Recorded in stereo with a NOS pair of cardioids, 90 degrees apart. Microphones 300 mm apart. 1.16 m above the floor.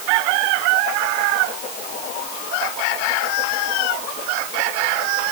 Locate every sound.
Only background noise.